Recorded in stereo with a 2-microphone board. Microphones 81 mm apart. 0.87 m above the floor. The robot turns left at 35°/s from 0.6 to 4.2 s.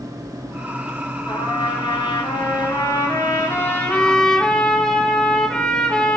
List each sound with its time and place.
1.3 s a trumpet: 115° left, 3 m; by 6.2 s 10° left, 3 m